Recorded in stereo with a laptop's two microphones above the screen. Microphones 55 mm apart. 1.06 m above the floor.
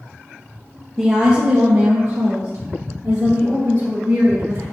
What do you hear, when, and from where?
1.0 s a woman speaking: 10° right (ahead or behind), 0.5 m; by 4.6 s 80° right, 2 m